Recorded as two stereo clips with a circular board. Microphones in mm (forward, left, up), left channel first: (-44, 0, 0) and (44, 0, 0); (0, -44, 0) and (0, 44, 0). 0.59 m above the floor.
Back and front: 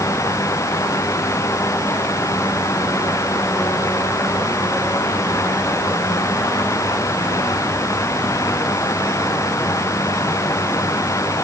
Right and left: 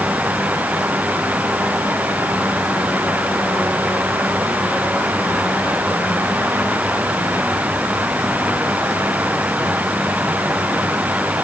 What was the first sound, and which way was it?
Only background noise.